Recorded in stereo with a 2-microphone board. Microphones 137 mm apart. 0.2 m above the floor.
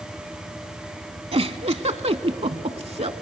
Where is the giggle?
50° right (ahead or behind), 0.6 m.